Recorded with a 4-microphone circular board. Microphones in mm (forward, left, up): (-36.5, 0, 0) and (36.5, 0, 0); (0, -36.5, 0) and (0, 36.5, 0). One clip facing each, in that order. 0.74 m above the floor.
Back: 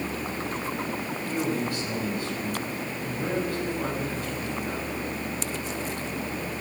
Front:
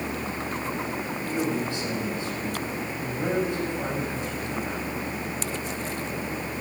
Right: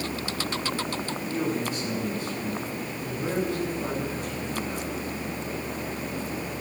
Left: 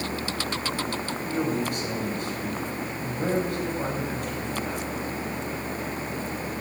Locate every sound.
1.3 s a man speaking: 70° left, 5.5 m